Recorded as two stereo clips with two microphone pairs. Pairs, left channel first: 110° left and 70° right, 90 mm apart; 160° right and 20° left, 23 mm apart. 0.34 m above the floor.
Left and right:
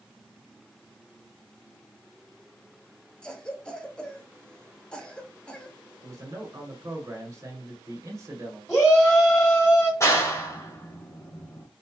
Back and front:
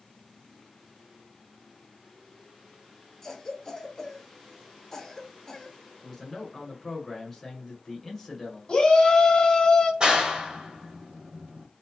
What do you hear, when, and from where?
3.2 s a cough: 175° left, 0.8 m
6.0 s a man speaking: 90° right, 1.6 m
8.7 s a shout: 175° right, 1.6 m
10.0 s a clap: 60° left, 0.9 m